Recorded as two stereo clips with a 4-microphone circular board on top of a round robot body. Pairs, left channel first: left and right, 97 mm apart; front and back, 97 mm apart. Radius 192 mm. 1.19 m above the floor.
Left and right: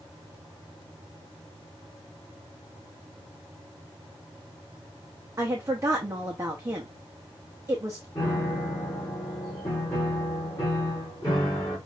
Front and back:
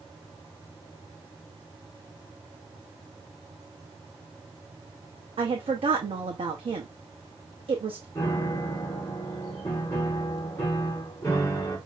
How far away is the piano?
About 0.9 m.